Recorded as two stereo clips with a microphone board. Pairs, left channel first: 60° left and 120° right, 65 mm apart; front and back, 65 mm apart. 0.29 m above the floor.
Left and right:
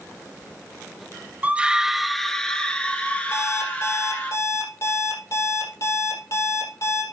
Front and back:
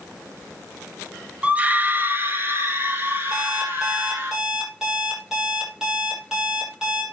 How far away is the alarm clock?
About 6 m.